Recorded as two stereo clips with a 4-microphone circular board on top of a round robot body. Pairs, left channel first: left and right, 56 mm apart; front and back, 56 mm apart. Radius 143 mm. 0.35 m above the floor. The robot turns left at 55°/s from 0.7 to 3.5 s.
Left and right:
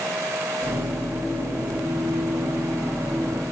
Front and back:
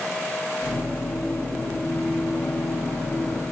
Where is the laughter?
No laughter in this recording.